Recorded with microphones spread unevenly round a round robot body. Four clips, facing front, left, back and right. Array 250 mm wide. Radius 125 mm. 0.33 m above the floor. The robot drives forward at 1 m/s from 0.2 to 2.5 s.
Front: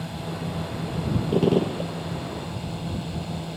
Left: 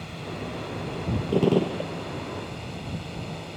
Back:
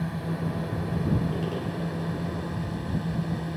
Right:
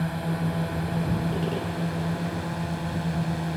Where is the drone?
100° right; by 3.6 s 105° right.